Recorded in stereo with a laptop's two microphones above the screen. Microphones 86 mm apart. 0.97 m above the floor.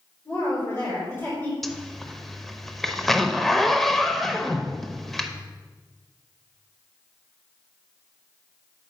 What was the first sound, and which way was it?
A woman speaking, 35° left (ahead or behind).